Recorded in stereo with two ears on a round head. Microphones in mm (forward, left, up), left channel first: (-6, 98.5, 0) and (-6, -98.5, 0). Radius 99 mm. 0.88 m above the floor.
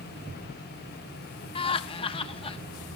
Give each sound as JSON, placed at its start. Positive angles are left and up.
{"t": 1.6, "sound": "laughter", "side_deg": 25, "distance_m": 0.9}